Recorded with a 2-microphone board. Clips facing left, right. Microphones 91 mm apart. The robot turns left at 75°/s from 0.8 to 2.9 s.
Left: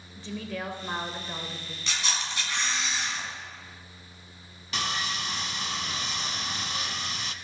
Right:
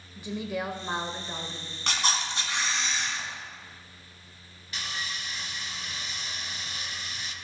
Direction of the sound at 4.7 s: 90° left.